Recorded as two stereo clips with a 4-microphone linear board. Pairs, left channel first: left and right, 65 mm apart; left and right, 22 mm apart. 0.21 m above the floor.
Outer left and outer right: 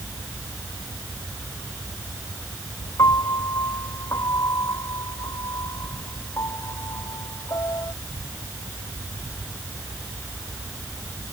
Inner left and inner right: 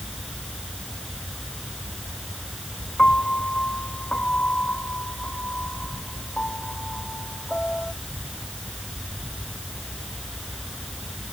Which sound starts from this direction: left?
A piano, at 3.0 s.